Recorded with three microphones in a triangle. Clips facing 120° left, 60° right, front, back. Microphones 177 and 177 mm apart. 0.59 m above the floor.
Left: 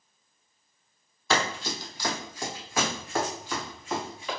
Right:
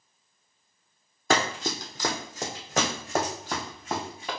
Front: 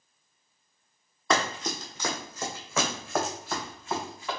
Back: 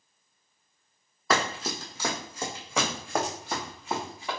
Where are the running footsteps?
95° right, 1.1 m; by 4.3 s 110° right, 2.5 m.